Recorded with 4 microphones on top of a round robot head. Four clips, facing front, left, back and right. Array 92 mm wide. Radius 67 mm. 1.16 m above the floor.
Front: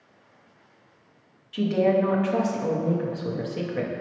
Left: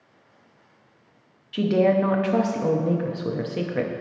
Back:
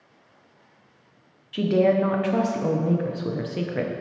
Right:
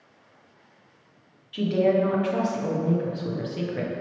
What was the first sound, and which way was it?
A woman speaking, 125° left.